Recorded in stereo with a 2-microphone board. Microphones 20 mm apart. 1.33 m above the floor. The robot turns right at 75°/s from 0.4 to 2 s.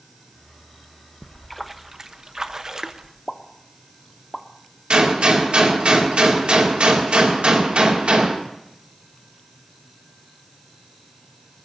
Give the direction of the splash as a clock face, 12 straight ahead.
7 o'clock.